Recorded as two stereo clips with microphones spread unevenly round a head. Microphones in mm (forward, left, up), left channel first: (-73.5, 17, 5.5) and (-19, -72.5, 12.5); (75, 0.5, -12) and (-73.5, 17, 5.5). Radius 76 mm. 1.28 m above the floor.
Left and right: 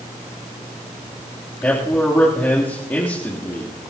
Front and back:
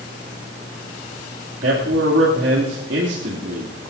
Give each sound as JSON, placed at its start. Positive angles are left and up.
{"t": 1.6, "sound": "a man speaking", "azimuth_deg": -165, "distance_m": 3.0}